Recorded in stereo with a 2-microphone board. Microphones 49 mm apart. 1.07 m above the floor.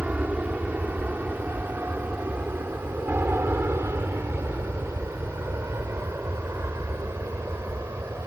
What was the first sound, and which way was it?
An aircraft, 30° right (ahead or behind).